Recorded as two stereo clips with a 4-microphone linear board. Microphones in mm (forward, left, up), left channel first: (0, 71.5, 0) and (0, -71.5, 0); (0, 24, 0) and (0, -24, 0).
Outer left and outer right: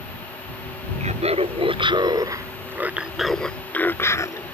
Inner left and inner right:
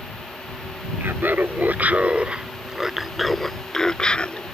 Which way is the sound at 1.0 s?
50° right (ahead or behind).